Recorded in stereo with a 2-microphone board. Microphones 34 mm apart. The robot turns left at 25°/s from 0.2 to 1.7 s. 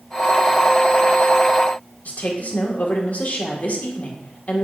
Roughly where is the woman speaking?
Left.